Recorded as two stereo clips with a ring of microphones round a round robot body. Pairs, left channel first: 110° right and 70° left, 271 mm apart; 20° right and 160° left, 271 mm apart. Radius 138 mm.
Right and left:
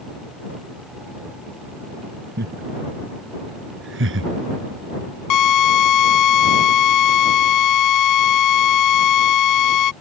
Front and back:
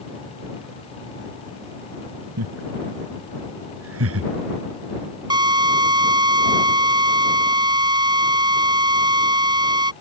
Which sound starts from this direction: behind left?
Laughter, at 2.4 s.